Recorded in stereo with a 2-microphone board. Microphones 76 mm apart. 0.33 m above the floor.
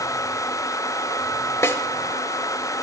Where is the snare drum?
40° left (ahead or behind), 0.7 m.